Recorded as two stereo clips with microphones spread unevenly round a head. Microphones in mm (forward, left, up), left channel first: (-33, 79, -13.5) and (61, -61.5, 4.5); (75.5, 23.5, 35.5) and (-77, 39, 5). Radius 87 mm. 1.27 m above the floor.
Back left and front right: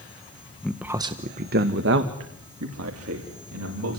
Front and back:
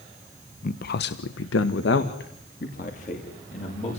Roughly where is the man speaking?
Ahead left.